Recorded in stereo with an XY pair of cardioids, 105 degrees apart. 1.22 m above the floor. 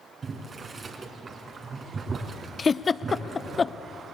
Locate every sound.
0.2 s boiling: 45° right, 3.5 m
2.6 s a giggle: 30° left, 0.6 m